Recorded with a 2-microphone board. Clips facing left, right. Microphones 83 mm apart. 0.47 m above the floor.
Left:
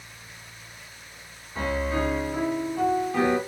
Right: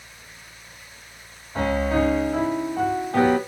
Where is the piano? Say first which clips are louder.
Right 5 dB; 60° right (ahead or behind), 1.8 m.